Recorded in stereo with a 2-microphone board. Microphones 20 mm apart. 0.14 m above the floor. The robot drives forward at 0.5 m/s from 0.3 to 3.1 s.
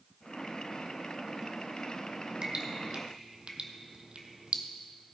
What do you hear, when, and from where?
2.4 s dripping: 45° right (ahead or behind), 1.2 m; by 4.6 s 55° right (ahead or behind), 1.0 m